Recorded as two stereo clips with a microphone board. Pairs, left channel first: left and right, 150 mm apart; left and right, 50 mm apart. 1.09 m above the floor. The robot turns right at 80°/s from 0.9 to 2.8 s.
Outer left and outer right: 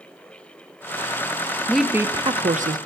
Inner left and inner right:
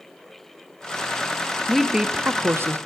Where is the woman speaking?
170° left, 0.7 m; by 2.8 s 100° right, 0.7 m.